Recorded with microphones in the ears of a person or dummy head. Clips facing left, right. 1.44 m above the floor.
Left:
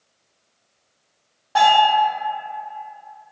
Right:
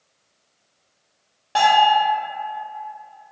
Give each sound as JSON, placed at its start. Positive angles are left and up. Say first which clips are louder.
{"t": 1.6, "sound": "a bell", "louder": "even", "side_deg": -30, "distance_m": 1.1}